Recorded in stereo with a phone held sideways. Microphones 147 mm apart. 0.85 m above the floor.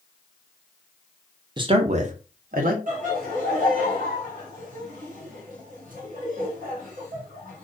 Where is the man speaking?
30° right (ahead or behind), 0.5 m; by 2.8 s 70° right (ahead or behind), 0.9 m.